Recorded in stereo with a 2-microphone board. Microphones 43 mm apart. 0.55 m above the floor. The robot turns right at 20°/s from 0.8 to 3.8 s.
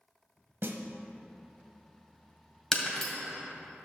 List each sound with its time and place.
0.6 s a snare drum: 65° right (ahead or behind), 0.9 m
2.7 s breaking glass: 10° left (ahead or behind), 1.9 m; by 3.1 s 15° left (ahead or behind), 1.9 m